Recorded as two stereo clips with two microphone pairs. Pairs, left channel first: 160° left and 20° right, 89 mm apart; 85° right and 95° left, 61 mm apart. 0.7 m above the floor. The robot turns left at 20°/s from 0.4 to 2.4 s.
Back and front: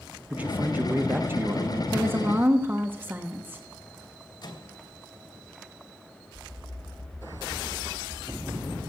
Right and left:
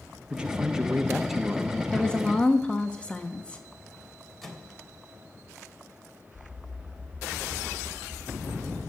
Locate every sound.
0.3 s a man speaking: 35° left, 1.1 m; by 1.8 s 5° left, 1.1 m
1.9 s a woman speaking: 30° right, 1.2 m; by 3.6 s 40° right, 1.2 m
4.4 s a microwave: 170° right, 2.5 m